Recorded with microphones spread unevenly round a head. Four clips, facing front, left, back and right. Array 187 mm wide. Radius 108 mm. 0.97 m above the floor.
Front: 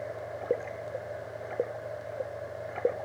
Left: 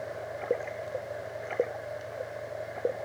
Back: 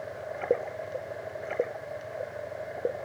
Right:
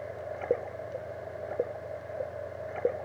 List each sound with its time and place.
Only background noise.